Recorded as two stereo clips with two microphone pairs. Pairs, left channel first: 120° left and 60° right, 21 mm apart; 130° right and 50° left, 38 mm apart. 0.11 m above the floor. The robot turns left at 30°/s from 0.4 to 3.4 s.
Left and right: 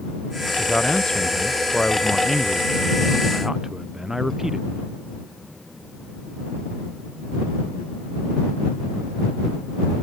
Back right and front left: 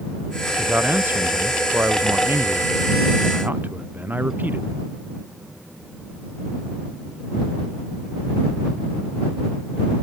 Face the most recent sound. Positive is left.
turn(degrees=15)